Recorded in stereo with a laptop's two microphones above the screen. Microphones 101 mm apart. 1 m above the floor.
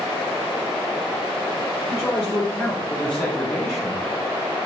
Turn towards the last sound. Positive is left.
turn(degrees=0)  # may be behind; listen again after turning